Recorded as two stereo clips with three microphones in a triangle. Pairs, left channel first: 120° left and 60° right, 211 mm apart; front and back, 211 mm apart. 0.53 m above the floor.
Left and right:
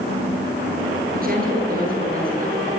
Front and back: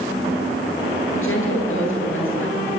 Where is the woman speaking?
15° right, 10 m.